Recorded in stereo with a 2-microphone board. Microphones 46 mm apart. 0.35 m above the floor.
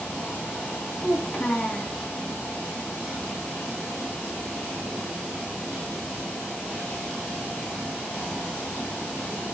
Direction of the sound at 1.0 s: 35° left (ahead or behind).